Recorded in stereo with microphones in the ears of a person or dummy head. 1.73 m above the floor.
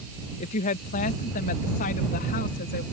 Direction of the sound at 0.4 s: 40° left (ahead or behind).